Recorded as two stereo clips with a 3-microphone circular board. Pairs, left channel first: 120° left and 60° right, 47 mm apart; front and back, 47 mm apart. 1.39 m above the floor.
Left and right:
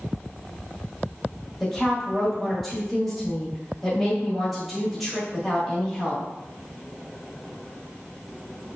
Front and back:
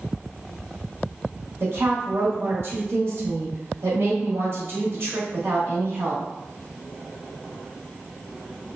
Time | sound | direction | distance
1.6 | a woman speaking | 150° right | 1.2 m